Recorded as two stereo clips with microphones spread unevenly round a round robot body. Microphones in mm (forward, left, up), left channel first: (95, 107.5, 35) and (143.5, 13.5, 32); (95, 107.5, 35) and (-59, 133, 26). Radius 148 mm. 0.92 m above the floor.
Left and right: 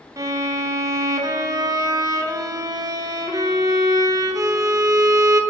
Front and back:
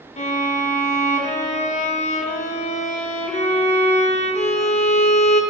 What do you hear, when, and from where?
0.2 s a violin: 30° right, 1.0 m